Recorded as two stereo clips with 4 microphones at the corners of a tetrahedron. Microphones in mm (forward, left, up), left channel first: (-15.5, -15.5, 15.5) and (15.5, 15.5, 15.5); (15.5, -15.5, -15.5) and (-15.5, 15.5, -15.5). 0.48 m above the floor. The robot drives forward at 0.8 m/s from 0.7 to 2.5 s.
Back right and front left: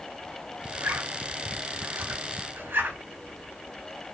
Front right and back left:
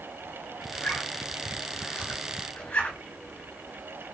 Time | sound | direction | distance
0.7 | a zipper | 15° left | 7.5 m